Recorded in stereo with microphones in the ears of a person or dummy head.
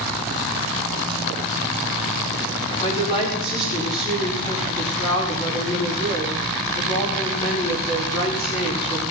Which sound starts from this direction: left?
A woman speaking, at 2.8 s.